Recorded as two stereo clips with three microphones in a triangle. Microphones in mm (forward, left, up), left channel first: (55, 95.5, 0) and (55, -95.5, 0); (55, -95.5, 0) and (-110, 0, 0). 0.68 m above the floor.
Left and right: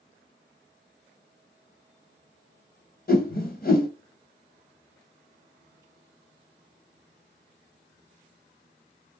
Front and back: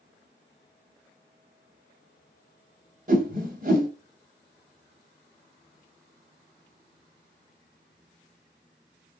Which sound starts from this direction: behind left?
A whoosh, at 3.1 s.